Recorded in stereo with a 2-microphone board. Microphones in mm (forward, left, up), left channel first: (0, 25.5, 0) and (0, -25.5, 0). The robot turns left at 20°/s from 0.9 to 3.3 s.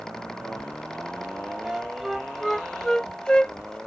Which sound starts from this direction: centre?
A flute, at 1.6 s.